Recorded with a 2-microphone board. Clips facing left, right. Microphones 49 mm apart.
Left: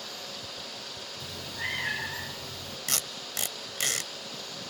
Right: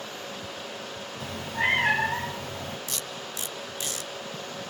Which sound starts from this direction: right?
A cat meowing, at 1.2 s.